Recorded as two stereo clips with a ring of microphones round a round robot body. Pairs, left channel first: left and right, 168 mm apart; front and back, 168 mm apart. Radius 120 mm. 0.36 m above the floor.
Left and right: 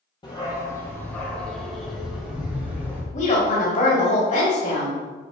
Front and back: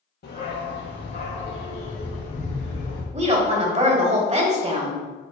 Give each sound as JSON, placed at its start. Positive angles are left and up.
{"t": 0.2, "sound": "a dog barking", "azimuth_deg": 25, "distance_m": 2.5}
{"t": 3.1, "sound": "a woman speaking", "azimuth_deg": 135, "distance_m": 2.0}